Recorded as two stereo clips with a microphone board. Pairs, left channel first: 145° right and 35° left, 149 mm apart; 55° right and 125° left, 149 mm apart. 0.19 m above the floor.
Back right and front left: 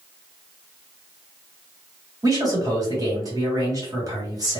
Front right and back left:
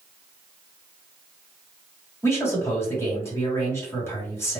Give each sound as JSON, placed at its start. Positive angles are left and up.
{"t": 2.2, "sound": "a man speaking", "azimuth_deg": 0, "distance_m": 1.8}